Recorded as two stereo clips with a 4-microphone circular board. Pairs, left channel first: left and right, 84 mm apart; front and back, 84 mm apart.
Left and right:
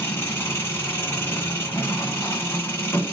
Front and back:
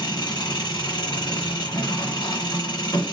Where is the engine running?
25° left, 1.7 m.